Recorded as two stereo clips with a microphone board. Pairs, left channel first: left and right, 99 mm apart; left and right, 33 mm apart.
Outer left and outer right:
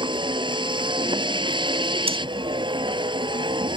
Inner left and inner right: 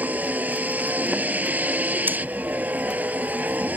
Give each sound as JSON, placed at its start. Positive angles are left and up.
{"t": 0.0, "sound": "a vehicle", "side_deg": -55}
{"t": 2.1, "sound": "breathing", "side_deg": -75}